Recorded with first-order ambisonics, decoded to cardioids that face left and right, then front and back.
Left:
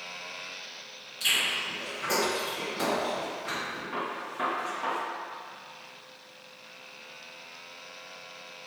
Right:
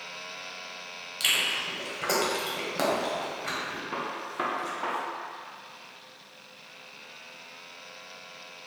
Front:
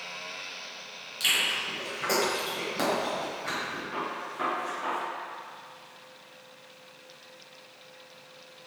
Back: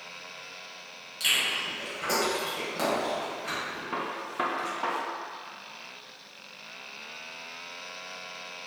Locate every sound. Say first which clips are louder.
1.2 s chewing: right 1 dB, even; 80° right, 1.3 m
3.9 s a gunshot: right 1 dB, back 1 dB; 145° right, 0.7 m